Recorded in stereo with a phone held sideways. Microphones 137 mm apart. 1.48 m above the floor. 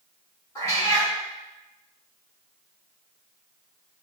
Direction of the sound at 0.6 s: 25° left (ahead or behind).